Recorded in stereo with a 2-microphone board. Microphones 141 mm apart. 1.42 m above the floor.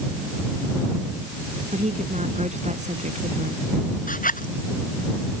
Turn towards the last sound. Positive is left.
turn(degrees=80)